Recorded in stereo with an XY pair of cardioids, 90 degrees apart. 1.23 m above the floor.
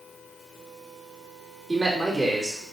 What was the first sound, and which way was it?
A man speaking, 25° right.